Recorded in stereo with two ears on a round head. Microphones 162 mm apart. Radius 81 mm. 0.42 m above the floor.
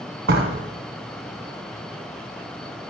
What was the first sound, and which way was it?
A door slam, 55° right (ahead or behind).